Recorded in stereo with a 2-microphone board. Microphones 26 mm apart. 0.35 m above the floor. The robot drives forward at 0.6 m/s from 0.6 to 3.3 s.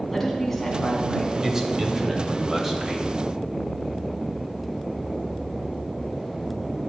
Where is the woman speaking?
5° left (ahead or behind), 2.5 m.